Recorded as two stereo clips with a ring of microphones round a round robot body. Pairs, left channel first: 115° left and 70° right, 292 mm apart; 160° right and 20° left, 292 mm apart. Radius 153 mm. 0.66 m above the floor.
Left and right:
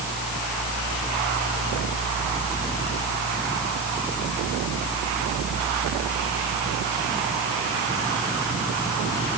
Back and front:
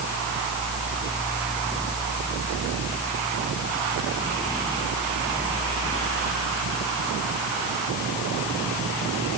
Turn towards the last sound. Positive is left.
No sound to turn to.